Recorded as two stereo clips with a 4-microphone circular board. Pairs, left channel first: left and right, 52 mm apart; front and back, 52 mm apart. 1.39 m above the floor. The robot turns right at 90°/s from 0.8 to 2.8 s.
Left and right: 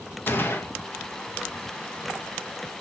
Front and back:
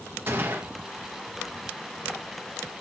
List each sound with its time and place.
0.3 s a gunshot: 135° left, 1.9 m